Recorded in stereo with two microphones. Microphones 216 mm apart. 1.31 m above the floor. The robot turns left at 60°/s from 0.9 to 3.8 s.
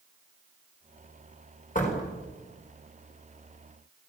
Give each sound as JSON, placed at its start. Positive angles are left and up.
{"t": 1.8, "sound": "a door slam", "side_deg": 40, "distance_m": 4.5}